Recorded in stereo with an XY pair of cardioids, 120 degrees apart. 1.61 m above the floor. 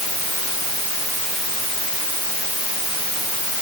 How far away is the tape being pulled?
No tape being pulled in this recording.